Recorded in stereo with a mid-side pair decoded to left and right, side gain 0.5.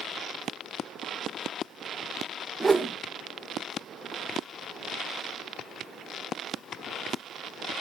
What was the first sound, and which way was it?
A whoosh, 15° right.